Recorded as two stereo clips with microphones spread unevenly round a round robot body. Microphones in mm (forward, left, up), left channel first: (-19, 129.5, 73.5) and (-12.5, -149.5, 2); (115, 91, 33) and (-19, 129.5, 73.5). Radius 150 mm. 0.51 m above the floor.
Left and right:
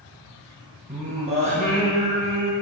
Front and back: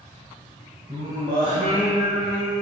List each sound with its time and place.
0.9 s singing: 145° right, 3.5 m